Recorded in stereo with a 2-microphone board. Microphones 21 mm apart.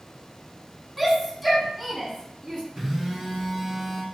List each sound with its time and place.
1.0 s a shout: centre (ahead or behind), 1.0 m
2.8 s a phone buzzing: 5° right (ahead or behind), 1.5 m